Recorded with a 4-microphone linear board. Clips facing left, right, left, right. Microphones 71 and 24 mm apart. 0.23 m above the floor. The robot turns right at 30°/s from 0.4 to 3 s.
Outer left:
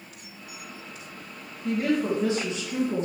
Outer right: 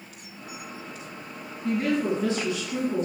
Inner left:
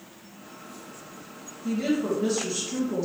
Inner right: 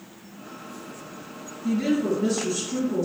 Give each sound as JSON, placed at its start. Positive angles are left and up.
{"t": 1.6, "sound": "a woman speaking", "azimuth_deg": 5, "distance_m": 1.7}